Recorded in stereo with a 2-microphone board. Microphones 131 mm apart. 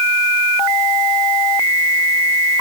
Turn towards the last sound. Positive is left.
No sound to turn to.